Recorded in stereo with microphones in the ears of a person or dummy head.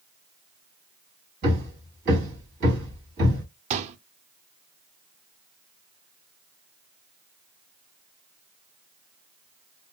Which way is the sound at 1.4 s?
50° right (ahead or behind).